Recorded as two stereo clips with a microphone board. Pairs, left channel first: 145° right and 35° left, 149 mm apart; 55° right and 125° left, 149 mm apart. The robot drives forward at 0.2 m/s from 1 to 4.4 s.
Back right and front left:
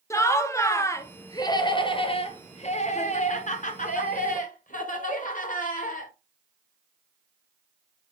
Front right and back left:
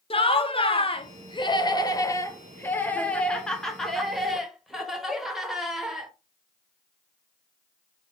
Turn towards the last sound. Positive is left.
turn(degrees=-150)